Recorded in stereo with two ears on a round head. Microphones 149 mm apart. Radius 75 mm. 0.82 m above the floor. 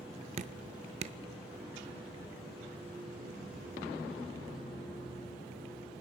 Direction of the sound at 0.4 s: 40° right (ahead or behind).